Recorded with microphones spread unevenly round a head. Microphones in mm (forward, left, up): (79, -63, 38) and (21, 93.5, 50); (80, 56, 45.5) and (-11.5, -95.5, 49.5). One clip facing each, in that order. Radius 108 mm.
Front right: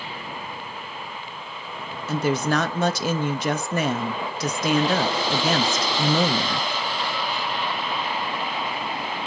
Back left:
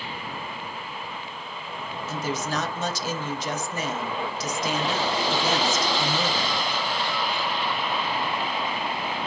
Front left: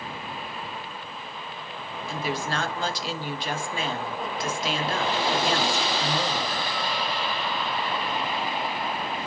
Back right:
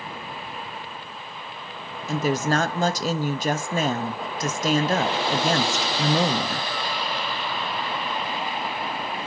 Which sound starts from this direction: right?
A woman speaking, at 2.1 s.